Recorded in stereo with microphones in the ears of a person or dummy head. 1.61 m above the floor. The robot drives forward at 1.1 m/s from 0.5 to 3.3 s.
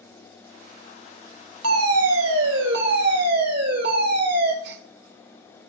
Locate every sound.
1.6 s a fire alarm: 80° right, 2.5 m; by 4.5 s 50° right (ahead or behind), 3 m
4.6 s a gasp: 60° right (ahead or behind), 1.5 m